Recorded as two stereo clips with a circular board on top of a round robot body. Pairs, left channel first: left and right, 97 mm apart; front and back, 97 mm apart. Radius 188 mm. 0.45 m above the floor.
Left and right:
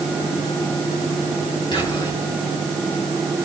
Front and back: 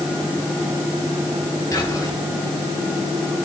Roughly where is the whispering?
Ahead left.